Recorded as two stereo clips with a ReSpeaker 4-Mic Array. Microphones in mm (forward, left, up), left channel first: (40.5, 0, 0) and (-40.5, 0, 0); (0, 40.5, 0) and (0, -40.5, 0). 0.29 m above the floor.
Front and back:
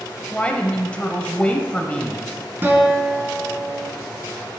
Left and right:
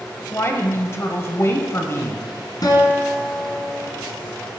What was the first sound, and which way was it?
A woman speaking, 65° left.